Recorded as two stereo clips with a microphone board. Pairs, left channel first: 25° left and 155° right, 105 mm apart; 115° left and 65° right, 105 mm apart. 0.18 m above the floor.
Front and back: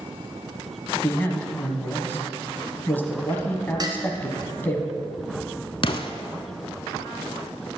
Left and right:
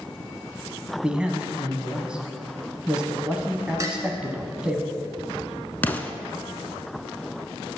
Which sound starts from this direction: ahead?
A man speaking, at 1.0 s.